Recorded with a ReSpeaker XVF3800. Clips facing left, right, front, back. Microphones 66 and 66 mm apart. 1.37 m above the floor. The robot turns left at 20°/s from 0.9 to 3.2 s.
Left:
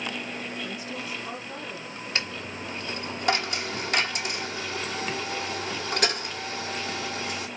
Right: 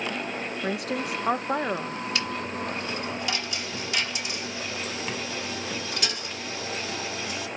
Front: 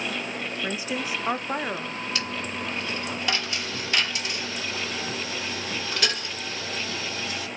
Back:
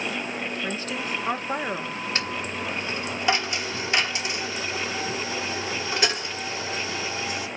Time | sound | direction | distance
0.6 | a woman speaking | 75° right | 0.7 m
2.1 | a dropped coin | 135° left | 1.8 m